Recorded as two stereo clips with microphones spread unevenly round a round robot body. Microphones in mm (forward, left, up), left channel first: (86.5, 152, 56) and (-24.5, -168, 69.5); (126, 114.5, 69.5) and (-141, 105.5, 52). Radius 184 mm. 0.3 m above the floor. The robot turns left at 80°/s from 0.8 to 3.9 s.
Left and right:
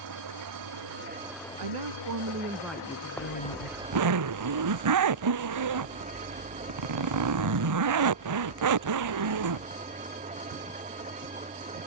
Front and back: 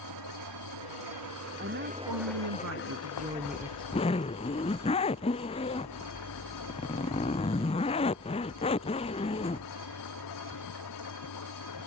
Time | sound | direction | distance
0.0 | an engine running | 150° right | ?
1.6 | a woman speaking | 110° right | ?
3.2 | a zipper | 15° right | ?